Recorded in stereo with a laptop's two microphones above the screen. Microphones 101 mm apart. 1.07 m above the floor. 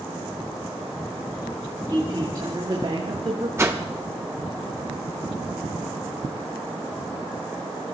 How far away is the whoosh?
About 1.0 m.